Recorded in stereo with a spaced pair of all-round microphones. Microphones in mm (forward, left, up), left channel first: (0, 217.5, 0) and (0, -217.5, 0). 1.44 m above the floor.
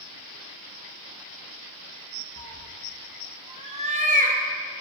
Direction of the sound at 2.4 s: 10° left (ahead or behind).